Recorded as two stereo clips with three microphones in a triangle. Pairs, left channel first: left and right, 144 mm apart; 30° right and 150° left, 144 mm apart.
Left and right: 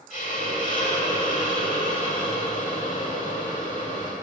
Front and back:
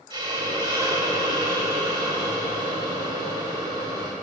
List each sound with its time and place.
0.1 s a hiss: 100° left, 1.6 m